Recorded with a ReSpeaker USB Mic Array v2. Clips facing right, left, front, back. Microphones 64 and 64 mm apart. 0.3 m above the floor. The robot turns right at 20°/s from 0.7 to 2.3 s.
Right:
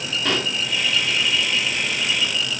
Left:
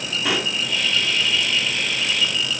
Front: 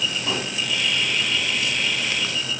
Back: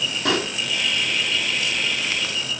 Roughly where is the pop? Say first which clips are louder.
Even, back 4 dB; behind.